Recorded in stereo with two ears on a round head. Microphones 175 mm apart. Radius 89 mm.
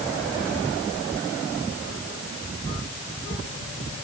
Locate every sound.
Only background noise.